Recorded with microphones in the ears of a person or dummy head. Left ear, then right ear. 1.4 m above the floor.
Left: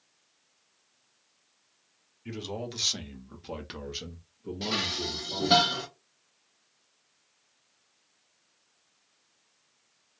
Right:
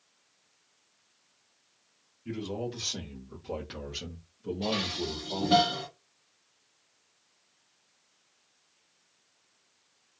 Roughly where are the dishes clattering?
Left.